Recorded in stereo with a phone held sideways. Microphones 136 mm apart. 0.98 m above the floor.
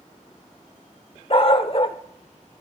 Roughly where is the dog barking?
Left.